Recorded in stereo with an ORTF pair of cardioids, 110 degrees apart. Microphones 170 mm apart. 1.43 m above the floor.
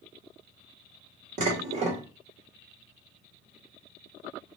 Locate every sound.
1.4 s dishes clattering: 45° right, 1.4 m